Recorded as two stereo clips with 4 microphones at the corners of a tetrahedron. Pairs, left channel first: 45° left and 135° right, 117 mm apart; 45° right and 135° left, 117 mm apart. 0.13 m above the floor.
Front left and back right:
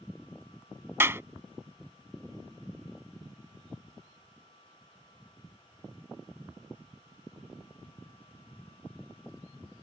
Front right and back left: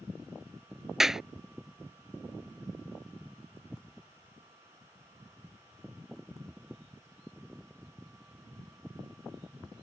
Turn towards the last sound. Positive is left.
turn(degrees=-145)